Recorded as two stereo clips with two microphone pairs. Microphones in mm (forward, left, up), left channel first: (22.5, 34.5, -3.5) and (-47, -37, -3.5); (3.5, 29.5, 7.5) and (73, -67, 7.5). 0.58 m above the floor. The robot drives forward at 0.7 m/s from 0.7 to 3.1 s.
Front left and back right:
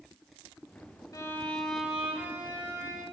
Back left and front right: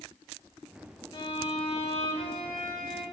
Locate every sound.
1.1 s a violin: 85° left, 0.5 m; by 3.0 s 165° left, 1.4 m